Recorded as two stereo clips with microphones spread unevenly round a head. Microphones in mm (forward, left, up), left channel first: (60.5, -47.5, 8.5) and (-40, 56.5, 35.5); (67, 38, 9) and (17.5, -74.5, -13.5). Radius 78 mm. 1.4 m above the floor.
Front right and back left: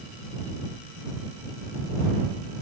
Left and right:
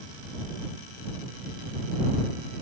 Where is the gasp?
No gasp in this recording.